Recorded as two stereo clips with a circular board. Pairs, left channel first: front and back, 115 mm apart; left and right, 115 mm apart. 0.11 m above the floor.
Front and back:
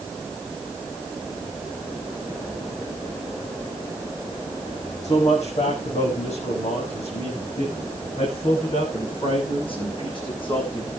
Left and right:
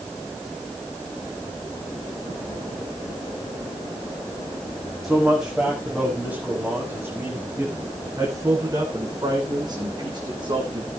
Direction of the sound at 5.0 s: Straight ahead.